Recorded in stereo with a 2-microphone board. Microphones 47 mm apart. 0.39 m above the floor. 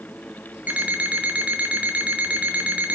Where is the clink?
I don't hear a clink.